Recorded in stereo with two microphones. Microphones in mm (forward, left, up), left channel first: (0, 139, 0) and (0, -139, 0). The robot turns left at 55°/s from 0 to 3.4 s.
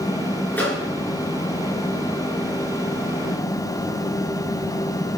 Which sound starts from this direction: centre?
A microwave, at 0.5 s.